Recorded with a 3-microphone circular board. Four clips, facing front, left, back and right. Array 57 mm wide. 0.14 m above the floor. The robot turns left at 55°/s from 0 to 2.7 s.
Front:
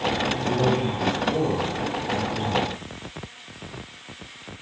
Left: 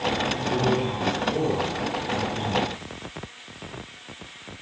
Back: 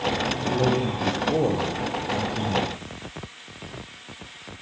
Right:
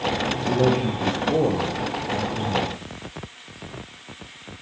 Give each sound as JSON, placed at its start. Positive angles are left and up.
{"t": 0.3, "sound": "a man speaking", "azimuth_deg": -75, "distance_m": 6.0}